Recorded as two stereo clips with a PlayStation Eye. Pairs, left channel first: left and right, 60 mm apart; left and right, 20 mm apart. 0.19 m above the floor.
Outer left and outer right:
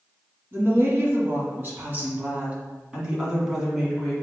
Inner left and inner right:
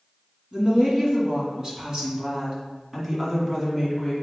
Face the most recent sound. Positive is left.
turn(degrees=0)  # may be behind; listen again after turning